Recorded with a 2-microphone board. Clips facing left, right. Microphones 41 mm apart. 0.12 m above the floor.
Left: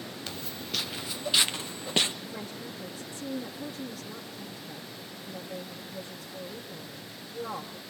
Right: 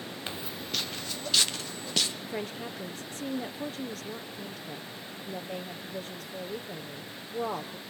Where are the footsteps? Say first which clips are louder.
Right 1 dB; 25° right (ahead or behind), 0.6 m; by 2.1 s 25° left (ahead or behind), 1.7 m.